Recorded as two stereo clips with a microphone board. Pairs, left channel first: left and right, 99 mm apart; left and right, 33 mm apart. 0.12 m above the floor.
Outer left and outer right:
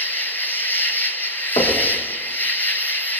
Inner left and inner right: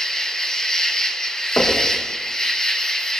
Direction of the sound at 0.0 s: 20° left (ahead or behind).